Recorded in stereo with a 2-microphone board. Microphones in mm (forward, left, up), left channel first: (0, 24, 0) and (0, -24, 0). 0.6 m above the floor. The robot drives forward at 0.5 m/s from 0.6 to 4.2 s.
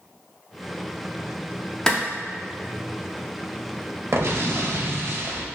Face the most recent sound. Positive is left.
turn(degrees=-55)  # may be behind; listen again after turning